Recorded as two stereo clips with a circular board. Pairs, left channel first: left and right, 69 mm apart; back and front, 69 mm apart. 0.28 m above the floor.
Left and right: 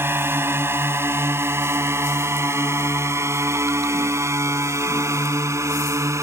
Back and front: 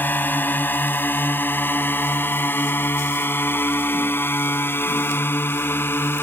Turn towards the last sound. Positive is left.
turn(degrees=-125)